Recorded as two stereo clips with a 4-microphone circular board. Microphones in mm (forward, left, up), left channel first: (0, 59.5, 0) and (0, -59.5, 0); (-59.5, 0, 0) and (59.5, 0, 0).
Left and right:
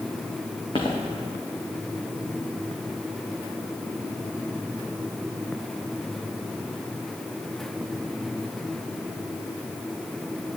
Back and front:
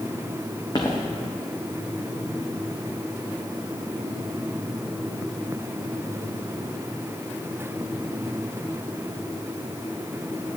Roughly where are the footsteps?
Behind left.